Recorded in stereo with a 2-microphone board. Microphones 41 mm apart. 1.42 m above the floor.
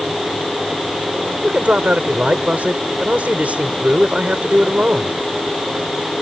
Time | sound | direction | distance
1.4 | a man speaking | 35° right (ahead or behind) | ?